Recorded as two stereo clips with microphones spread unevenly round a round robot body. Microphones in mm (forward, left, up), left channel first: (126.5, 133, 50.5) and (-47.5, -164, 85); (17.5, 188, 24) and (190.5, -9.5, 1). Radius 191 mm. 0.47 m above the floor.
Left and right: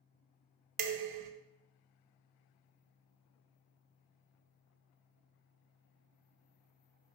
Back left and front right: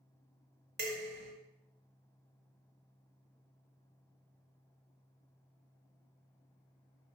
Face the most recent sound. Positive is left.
turn(degrees=-100)